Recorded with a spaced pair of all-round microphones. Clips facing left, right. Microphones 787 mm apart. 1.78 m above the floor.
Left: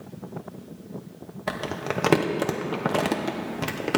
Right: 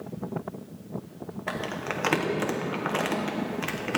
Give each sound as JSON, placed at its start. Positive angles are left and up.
{"t": 1.5, "sound": "crumpling", "side_deg": 65, "distance_m": 1.2}